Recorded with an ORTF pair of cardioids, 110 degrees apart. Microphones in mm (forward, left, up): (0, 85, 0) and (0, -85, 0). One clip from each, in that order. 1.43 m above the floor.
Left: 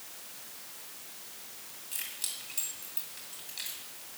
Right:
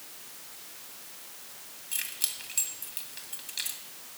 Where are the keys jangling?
35° right, 2 m.